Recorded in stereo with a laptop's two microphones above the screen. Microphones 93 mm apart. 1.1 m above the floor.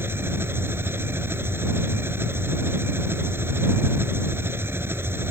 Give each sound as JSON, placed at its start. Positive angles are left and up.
{"t": 0.0, "sound": "an engine running", "side_deg": -25}